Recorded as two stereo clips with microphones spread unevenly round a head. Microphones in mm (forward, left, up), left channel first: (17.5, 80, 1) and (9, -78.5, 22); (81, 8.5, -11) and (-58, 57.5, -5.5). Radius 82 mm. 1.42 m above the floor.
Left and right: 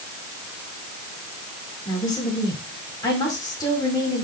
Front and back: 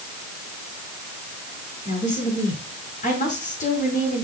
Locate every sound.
1.9 s a woman speaking: 20° left, 10 m